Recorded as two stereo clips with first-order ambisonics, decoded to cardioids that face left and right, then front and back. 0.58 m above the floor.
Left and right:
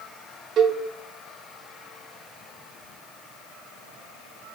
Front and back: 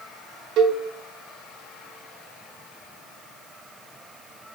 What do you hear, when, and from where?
0.6 s a cowbell: 140° right, 0.8 m